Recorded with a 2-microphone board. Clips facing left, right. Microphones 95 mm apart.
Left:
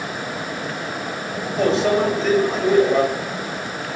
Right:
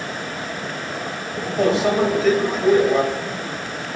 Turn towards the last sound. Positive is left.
turn(degrees=-5)  # may be behind; listen again after turning